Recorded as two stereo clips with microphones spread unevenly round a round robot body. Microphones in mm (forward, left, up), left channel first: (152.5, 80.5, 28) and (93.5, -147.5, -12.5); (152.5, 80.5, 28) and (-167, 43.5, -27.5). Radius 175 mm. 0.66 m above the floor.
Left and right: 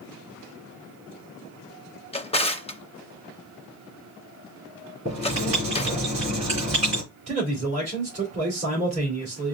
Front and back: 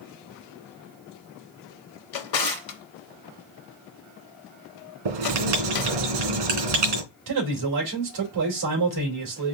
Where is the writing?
Straight behind, 3 m.